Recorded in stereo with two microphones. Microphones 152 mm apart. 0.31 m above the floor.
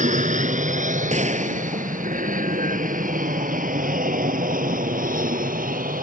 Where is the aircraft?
50° right (ahead or behind); by 6.0 s 60° right (ahead or behind).